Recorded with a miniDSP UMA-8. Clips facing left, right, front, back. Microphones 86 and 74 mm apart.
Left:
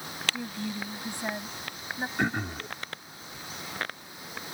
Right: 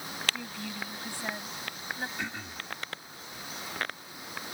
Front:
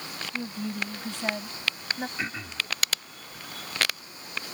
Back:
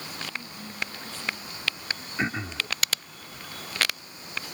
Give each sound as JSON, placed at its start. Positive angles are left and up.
{"t": 0.3, "sound": "a woman speaking", "azimuth_deg": 15}
{"t": 2.2, "sound": "throat clearing", "azimuth_deg": 120}